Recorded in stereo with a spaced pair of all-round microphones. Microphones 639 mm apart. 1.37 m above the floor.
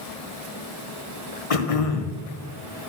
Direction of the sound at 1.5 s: 60° left (ahead or behind).